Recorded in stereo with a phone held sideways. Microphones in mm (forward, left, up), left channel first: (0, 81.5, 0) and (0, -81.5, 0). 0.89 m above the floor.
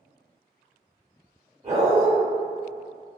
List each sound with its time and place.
1.6 s a dog barking: 40° right (ahead or behind), 1.0 m